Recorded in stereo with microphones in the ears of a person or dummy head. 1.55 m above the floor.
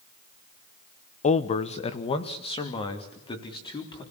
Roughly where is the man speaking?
Left.